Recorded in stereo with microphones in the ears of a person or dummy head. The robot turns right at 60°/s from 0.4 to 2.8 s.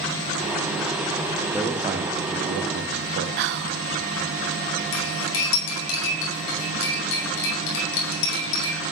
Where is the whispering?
60° right (ahead or behind), 0.6 m.